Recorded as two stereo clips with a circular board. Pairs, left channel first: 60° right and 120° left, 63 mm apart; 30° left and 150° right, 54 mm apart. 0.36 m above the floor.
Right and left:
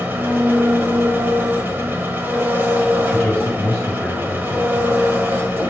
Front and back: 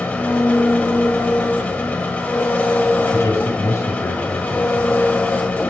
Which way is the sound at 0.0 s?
75° left.